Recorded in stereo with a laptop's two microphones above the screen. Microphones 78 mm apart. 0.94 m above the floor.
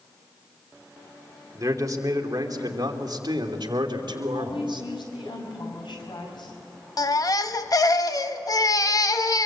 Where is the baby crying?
50° left (ahead or behind), 1.0 m.